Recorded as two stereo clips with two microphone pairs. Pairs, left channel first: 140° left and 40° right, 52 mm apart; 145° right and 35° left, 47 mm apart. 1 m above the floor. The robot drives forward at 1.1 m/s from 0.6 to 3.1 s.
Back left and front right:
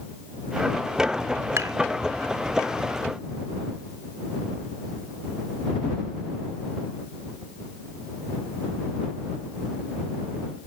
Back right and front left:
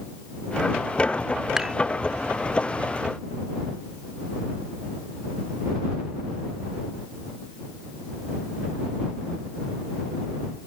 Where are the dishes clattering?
40° right; by 1.8 s 45° right.